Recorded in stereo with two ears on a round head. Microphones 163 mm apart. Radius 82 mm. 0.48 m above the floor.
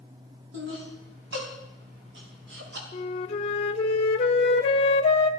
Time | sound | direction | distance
0.5 | laughter | 70° right (ahead or behind) | 5.5 m
2.9 | a flute | 40° left (ahead or behind) | 1.3 m